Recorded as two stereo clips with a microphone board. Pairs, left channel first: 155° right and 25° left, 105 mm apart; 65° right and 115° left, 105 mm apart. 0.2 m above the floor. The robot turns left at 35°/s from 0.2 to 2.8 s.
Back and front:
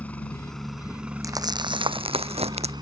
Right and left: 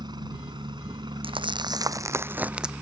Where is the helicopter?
130° left; by 2.8 s 40° left.